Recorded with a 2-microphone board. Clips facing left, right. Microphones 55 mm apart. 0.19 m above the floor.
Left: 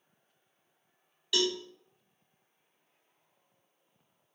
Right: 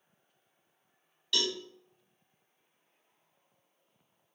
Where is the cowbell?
10° left (ahead or behind), 1.2 m.